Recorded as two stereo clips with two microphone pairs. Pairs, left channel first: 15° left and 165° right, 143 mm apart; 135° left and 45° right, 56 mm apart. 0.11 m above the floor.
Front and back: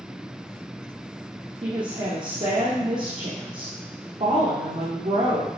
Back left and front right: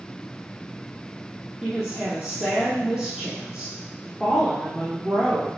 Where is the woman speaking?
140° right, 3 m.